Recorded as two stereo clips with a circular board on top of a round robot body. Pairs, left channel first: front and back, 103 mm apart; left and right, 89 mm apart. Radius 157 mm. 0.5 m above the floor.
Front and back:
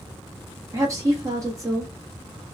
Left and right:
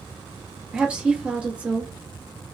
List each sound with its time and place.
0.7 s a woman speaking: 160° right, 1.3 m